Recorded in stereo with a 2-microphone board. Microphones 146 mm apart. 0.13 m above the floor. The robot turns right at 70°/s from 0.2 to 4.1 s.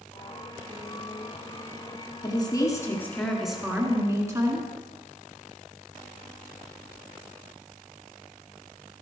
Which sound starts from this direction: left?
A woman speaking, at 2.2 s.